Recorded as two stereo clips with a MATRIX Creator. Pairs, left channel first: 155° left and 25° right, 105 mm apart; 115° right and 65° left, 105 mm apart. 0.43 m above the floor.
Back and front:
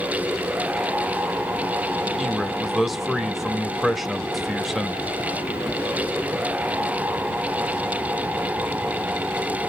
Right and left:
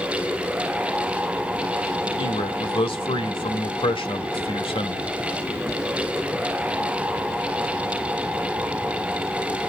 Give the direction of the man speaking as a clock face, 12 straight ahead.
4 o'clock.